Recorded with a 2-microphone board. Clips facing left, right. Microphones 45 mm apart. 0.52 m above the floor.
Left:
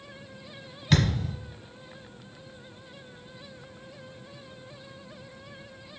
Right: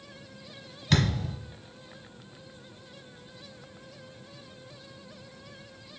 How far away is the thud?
About 1.4 m.